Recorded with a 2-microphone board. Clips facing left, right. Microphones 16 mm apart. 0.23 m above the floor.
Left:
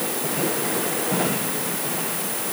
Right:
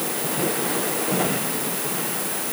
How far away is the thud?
I don't hear a thud.